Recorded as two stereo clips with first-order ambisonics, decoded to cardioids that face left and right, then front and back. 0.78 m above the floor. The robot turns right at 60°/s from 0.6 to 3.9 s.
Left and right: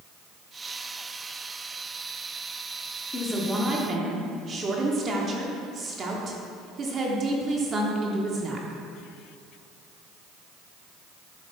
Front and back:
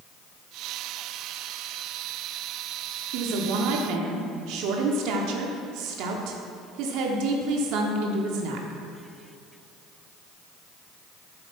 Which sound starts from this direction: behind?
A woman speaking, at 3.1 s.